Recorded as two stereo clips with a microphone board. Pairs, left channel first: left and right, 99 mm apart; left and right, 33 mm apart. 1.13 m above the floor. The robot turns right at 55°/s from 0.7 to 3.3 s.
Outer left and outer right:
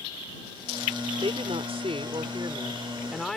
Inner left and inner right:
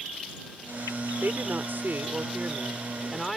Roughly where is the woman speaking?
Right.